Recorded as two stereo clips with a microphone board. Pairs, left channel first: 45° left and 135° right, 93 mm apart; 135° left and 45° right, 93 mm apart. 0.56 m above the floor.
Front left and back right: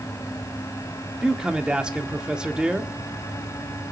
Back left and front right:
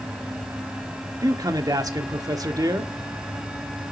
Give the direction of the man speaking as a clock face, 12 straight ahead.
2 o'clock.